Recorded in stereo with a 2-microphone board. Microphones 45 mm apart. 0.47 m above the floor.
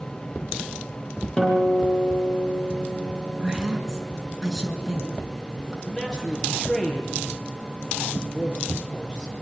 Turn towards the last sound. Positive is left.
turn(degrees=10)  # may be behind; listen again after turning